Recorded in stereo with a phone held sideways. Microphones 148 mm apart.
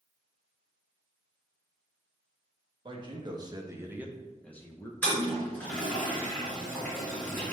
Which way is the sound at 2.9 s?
35° right (ahead or behind).